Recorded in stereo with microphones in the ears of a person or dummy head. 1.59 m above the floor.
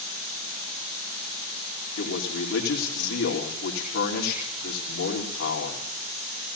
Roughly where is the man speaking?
Left.